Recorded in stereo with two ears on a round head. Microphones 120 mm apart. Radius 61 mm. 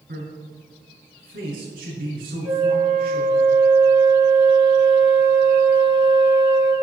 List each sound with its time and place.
0.1 s a man speaking: 75° right (ahead or behind), 6 m
2.4 s a flute: 15° right (ahead or behind), 7 m